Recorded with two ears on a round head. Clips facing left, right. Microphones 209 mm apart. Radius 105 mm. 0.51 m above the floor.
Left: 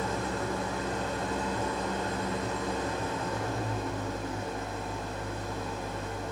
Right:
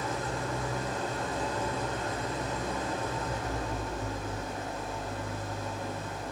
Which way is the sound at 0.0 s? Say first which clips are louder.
Left 2 dB; 50° left (ahead or behind).